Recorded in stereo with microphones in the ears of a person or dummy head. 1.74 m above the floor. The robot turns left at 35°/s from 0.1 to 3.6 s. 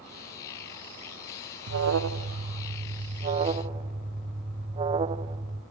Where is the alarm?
85° right, 0.5 m; by 5.6 s 155° right, 0.5 m.